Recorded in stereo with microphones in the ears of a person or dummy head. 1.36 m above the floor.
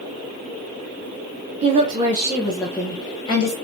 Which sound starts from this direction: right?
A woman speaking, at 1.6 s.